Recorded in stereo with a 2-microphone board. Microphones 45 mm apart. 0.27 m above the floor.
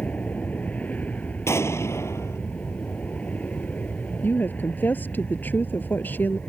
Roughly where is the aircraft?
Left.